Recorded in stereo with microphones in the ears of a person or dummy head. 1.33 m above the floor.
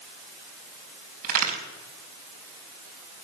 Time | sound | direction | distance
1.2 | a crack | 50° right (ahead or behind) | 4.5 m